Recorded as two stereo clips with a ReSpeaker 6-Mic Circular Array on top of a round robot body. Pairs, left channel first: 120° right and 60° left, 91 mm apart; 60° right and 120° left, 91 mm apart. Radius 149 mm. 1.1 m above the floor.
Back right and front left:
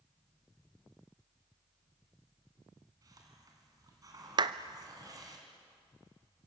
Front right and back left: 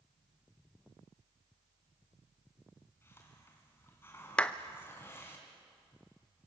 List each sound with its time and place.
3.0 s a hiss: 5° left, 2.5 m
4.4 s a clap: 20° left, 0.6 m